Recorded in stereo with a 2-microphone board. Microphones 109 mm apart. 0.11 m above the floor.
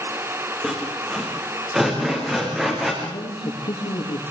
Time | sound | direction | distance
0.6 | sawing | 5° right (ahead or behind) | 6 m
3.0 | a man speaking | 70° left (ahead or behind) | 8 m